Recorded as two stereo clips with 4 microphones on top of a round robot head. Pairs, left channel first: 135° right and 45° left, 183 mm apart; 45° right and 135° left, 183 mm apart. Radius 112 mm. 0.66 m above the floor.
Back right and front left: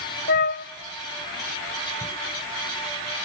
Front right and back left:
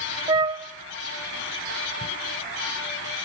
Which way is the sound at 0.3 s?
160° right.